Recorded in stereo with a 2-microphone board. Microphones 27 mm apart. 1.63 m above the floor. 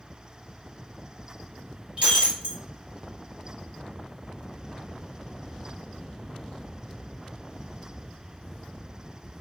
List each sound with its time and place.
2.0 s breaking glass: 45° right (ahead or behind), 1.2 m